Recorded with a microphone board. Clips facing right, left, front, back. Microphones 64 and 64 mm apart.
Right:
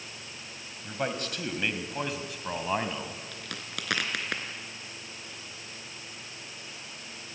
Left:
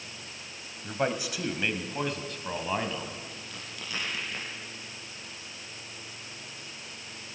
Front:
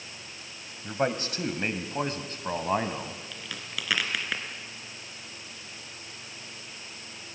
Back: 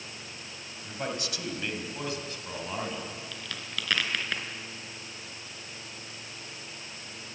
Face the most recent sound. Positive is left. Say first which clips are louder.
# right 3 dB, even
turn(degrees=-85)